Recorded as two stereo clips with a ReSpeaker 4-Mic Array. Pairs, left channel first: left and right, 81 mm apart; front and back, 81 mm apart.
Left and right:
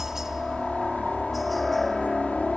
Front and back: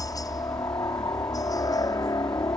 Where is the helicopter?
10° right; by 2.6 s 5° left.